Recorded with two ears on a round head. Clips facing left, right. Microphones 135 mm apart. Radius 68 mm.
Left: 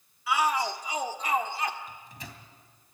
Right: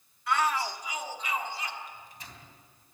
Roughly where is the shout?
Centre.